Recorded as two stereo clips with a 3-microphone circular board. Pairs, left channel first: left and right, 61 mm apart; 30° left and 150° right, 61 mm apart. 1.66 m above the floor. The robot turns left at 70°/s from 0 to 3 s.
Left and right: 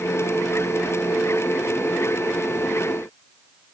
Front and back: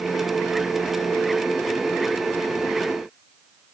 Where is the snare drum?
No snare drum in this recording.